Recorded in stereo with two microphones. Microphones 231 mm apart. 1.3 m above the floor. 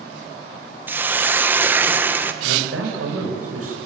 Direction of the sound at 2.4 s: 80° right.